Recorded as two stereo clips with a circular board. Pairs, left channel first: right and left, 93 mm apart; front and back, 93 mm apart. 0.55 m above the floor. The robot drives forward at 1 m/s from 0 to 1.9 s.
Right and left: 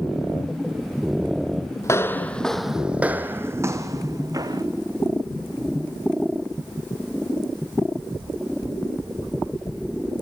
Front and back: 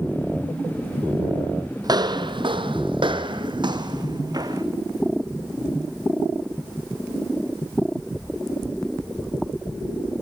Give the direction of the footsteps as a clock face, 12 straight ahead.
5 o'clock.